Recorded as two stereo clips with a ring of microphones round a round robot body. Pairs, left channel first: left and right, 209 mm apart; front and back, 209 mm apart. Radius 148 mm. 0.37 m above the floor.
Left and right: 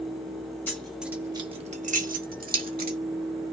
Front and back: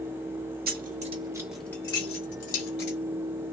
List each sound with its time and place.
0.7 s keys jangling: 170° left, 0.8 m; by 3.0 s 45° right, 1.3 m